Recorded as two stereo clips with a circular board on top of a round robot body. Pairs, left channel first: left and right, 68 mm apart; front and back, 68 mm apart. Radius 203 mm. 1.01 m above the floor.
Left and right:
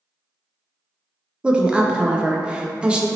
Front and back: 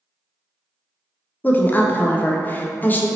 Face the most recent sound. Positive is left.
turn(degrees=-30)